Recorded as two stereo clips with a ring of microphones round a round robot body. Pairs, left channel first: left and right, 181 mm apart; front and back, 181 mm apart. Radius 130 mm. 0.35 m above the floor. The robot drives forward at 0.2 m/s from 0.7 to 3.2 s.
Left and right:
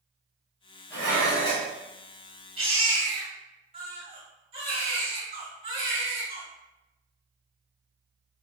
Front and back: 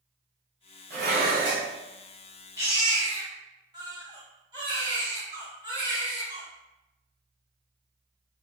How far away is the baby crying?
About 0.9 m.